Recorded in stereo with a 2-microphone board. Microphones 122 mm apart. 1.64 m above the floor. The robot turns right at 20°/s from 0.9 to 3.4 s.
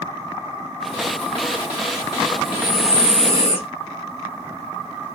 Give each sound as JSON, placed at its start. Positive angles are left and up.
{"t": 2.4, "sound": "breathing", "side_deg": 65, "distance_m": 0.6}